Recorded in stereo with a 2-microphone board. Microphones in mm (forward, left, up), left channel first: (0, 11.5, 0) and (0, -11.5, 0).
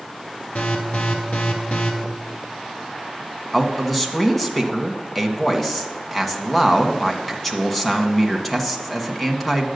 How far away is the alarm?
About 1.9 m.